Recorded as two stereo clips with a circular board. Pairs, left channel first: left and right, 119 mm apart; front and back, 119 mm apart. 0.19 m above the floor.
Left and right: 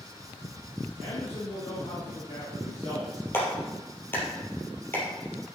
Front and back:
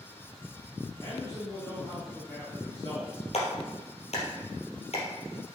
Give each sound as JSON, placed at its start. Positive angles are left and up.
{"t": 1.0, "sound": "a man speaking", "azimuth_deg": 65, "distance_m": 3.5}
{"t": 3.3, "sound": "a clap", "azimuth_deg": 20, "distance_m": 3.0}